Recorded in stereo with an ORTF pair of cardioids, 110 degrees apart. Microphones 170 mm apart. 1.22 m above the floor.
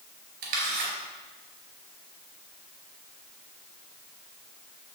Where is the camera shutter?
60° right, 4 m.